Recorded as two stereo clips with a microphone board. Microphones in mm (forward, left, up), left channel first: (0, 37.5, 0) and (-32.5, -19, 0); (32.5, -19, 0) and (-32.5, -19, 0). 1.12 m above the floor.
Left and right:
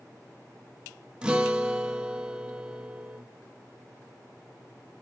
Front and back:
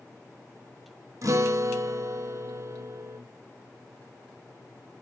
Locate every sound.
1.2 s a guitar: 165° left, 0.6 m